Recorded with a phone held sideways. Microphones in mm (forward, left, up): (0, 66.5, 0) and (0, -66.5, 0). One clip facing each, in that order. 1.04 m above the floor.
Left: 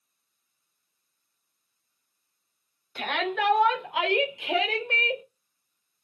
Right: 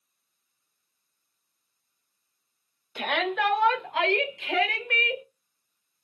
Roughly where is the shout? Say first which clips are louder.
Right 1 dB; centre.